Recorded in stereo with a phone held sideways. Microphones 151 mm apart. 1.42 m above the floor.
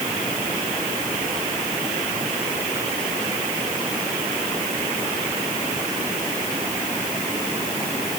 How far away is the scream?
No scream in this recording.